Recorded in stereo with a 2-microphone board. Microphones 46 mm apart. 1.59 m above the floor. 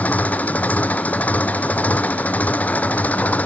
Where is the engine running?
35° left (ahead or behind).